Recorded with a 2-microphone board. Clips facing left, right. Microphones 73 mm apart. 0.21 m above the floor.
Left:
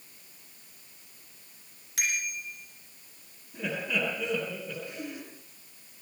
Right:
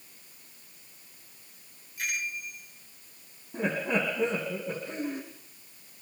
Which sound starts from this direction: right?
Laughter, at 3.5 s.